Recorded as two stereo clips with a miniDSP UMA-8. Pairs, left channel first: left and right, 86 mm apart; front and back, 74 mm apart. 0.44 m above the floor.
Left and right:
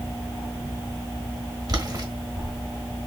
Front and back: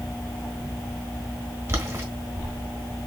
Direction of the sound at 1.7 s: 130° right.